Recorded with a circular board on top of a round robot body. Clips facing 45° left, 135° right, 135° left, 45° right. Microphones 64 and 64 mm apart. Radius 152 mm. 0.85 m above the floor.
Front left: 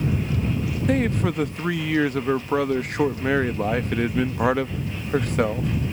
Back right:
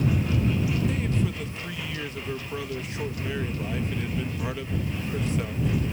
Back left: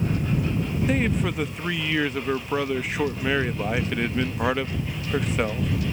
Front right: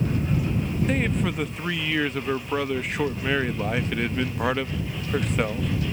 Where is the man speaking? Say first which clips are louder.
Front left 6 dB, back left 2 dB; 50° left.